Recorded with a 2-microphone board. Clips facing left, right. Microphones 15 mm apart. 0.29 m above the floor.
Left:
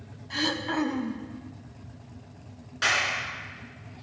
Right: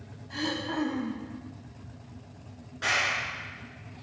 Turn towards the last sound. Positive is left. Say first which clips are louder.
# left 2 dB
turn(degrees=65)  # may be behind; listen again after turning